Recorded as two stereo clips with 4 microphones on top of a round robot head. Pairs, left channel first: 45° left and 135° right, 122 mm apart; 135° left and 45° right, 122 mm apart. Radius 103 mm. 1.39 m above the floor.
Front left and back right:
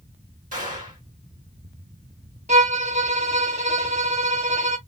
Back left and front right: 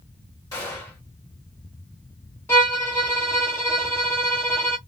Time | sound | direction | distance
0.5 | a gunshot | 160° right | 1.9 m
2.5 | a violin | 160° right | 0.5 m